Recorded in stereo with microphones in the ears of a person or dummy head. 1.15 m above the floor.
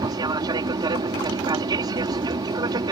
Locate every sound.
0.0 s an aircraft: 20° right (ahead or behind)